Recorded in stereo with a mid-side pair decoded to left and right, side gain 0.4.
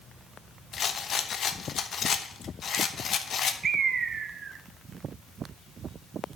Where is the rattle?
55° left, 1.0 m.